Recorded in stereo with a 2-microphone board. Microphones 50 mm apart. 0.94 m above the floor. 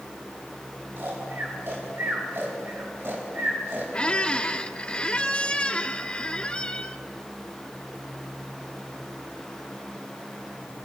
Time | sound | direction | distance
1.0 | snoring | 45° right (ahead or behind) | 4 m
3.9 | a squeak | 20° left (ahead or behind) | 0.6 m